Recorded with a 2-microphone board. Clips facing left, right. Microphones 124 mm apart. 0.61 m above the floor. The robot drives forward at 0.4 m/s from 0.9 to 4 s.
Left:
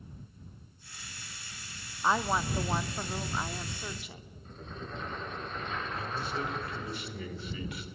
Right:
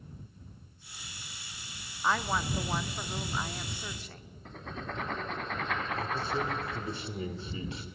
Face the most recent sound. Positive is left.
turn(degrees=-25)  # may be behind; listen again after turning